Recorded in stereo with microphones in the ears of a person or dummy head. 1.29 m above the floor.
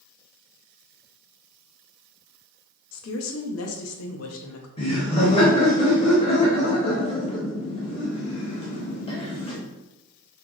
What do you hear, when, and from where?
2.9 s a woman speaking: 80° left, 0.6 m
4.8 s laughter: 30° left (ahead or behind), 0.8 m